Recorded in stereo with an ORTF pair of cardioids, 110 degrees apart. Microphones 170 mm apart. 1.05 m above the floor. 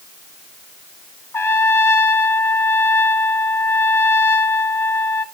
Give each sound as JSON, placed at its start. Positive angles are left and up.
{"t": 1.3, "sound": "a trumpet", "azimuth_deg": 15, "distance_m": 1.0}